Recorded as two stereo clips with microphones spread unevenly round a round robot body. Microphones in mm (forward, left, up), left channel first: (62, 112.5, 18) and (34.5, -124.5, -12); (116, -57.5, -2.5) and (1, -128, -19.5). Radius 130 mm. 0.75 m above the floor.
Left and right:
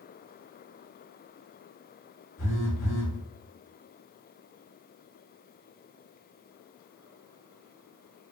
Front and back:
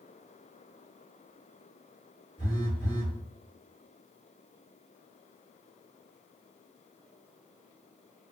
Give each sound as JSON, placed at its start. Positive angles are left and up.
{"t": 2.4, "sound": "a phone buzzing", "azimuth_deg": 95, "distance_m": 1.7}